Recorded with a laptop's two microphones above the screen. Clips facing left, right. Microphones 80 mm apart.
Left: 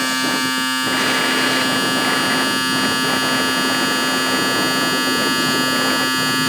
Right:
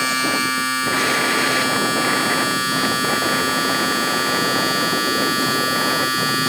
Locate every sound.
0.0 s a machine running: 60° left (ahead or behind), 1.7 m